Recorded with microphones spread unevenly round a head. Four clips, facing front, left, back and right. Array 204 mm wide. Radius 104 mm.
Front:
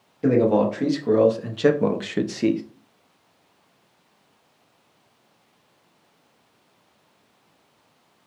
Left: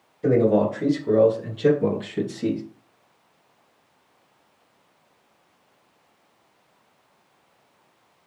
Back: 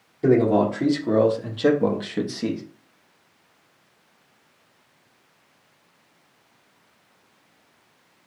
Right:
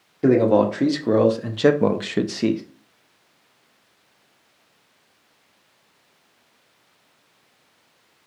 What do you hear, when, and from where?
0.2 s a man speaking: 100° right, 1.4 m; by 2.6 s 65° right, 0.5 m